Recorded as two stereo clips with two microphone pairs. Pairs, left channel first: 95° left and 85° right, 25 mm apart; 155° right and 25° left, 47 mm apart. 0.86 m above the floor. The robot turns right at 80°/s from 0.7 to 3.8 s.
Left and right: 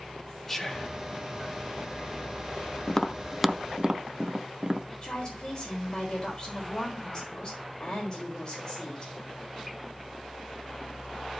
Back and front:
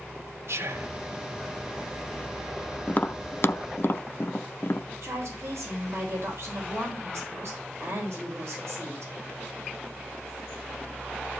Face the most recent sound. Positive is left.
turn(degrees=40)